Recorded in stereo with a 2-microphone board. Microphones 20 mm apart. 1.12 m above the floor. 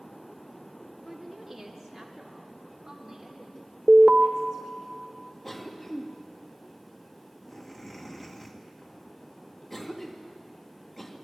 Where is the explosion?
No explosion in this recording.